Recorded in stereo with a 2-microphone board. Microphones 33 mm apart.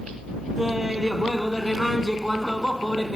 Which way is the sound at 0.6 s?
10° right (ahead or behind).